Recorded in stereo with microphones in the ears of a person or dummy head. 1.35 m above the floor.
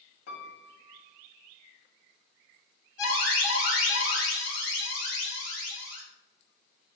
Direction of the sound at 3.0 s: 45° left (ahead or behind).